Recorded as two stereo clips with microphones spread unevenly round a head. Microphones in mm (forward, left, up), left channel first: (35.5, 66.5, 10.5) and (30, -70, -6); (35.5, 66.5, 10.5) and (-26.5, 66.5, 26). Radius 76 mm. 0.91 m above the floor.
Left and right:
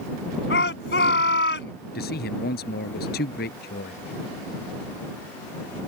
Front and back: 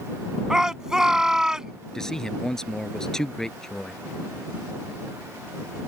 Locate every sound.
0.5 s a shout: 100° left
1.9 s a man speaking: 80° left